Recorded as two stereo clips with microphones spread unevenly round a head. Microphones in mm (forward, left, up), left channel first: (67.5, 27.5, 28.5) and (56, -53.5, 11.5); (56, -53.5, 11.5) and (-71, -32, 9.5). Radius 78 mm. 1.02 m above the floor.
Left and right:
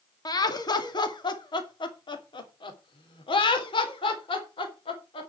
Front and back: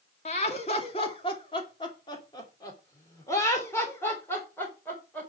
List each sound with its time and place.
0.2 s laughter: 40° left, 2 m; by 5.3 s 70° left, 4.5 m